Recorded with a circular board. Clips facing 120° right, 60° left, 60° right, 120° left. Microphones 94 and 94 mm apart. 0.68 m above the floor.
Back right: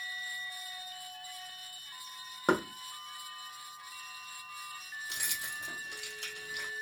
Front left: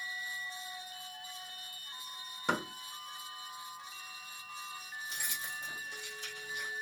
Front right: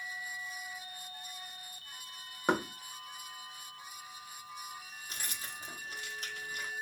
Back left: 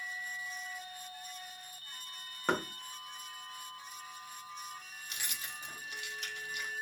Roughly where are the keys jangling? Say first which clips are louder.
Back right 1 dB, even; right.